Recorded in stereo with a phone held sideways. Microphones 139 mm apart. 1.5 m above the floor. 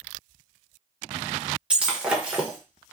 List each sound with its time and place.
1.7 s breaking glass: 10° right (ahead or behind), 0.9 m